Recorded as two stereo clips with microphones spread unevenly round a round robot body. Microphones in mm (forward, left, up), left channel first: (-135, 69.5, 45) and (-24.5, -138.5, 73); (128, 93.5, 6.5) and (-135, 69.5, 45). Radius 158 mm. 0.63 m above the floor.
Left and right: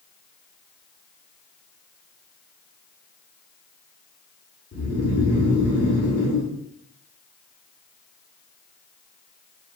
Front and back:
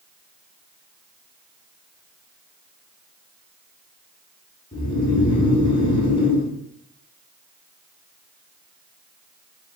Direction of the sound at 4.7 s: 75° left.